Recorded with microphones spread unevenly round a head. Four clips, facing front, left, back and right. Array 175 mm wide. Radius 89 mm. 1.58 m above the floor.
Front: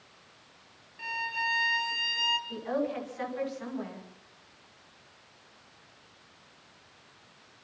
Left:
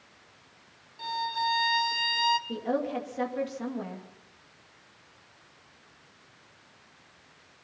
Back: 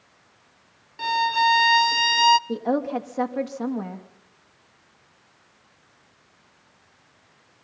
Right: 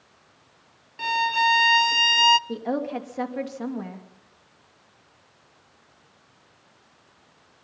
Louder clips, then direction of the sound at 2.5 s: Right 2 dB, back 7 dB; 160° right.